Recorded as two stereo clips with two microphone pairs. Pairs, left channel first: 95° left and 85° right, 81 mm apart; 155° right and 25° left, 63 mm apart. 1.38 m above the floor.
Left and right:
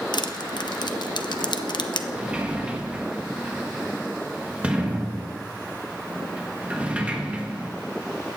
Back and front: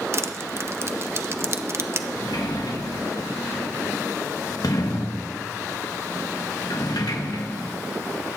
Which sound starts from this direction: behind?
A sliding door, at 2.2 s.